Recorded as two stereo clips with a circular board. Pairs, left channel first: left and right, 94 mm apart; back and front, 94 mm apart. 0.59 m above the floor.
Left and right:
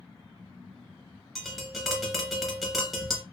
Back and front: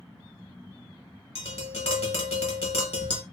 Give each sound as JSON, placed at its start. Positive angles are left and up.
{"t": 1.4, "sound": "tapping", "azimuth_deg": 180, "distance_m": 0.9}